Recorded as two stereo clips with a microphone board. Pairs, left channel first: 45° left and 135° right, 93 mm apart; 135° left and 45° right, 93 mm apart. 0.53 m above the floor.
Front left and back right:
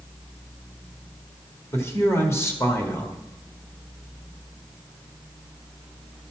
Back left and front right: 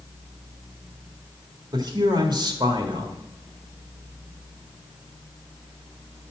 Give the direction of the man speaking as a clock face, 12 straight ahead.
12 o'clock.